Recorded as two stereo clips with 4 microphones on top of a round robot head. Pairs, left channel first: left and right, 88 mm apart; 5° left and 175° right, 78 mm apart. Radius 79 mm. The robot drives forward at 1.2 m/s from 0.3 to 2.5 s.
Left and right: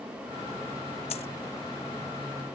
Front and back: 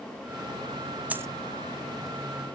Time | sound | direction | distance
1.1 | a dropped coin | 115° left | ?